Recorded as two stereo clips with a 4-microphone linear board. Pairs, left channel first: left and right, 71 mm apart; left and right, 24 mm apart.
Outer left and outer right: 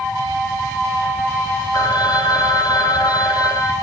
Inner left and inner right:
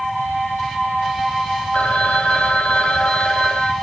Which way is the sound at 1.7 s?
70° left (ahead or behind).